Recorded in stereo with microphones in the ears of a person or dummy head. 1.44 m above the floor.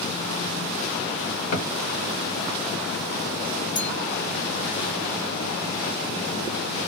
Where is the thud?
50° left (ahead or behind), 1.5 m.